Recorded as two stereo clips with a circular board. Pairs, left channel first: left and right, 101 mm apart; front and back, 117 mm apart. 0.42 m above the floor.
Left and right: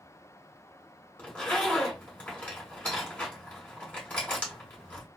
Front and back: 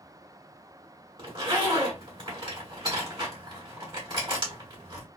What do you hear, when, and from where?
1.2 s a zipper: 160° left, 1.9 m